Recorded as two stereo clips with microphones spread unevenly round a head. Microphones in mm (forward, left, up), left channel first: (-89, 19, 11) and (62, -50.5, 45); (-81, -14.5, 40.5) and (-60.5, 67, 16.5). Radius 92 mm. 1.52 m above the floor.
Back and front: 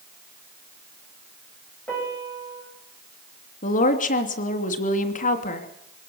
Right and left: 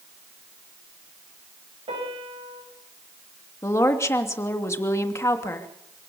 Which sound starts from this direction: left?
A piano, at 1.9 s.